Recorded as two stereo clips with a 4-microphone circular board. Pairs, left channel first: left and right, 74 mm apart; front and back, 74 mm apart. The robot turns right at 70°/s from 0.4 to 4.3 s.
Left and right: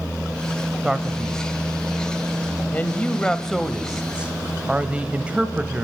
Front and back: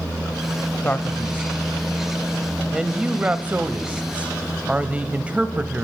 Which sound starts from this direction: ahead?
A man speaking, at 0.8 s.